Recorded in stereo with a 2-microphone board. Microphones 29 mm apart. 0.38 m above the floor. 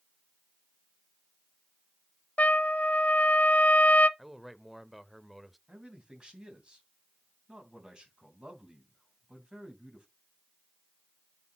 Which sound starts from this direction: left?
A trumpet, at 2.4 s.